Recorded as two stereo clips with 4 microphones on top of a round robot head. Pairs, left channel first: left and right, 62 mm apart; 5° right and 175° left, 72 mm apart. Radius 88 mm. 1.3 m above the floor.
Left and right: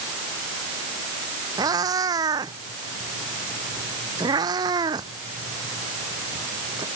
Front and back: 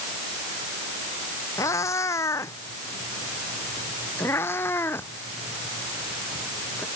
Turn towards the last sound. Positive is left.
turn(degrees=-75)